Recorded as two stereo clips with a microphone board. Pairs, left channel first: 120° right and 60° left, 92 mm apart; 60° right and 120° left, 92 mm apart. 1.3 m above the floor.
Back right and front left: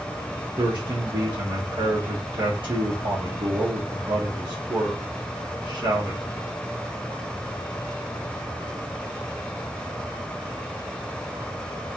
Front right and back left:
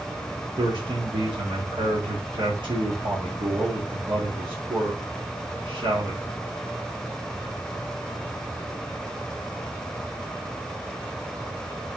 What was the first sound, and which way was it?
A man speaking, 90° left.